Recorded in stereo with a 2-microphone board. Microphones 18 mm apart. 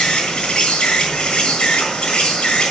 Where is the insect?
70° left (ahead or behind), 6 m.